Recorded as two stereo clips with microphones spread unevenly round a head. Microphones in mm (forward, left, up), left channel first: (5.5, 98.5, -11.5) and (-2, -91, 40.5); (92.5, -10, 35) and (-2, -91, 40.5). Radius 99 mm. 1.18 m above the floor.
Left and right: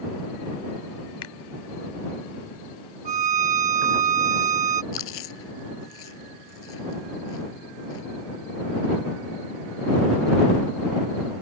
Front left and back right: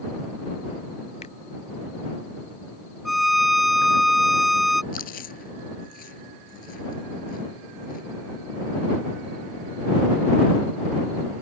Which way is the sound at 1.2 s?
100° left.